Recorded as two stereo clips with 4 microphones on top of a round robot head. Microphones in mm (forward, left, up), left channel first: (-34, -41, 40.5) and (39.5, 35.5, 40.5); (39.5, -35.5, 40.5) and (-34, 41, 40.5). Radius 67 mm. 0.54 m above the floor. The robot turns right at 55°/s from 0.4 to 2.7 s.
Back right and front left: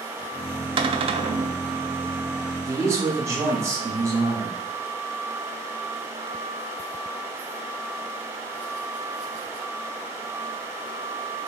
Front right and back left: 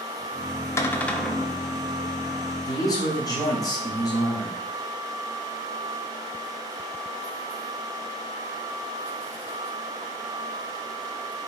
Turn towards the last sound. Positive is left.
turn(degrees=-5)